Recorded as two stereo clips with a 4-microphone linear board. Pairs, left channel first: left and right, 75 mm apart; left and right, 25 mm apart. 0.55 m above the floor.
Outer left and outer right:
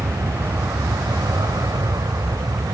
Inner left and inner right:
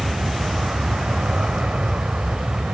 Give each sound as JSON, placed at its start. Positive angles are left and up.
{"t": 0.0, "sound": "an aircraft", "side_deg": -55}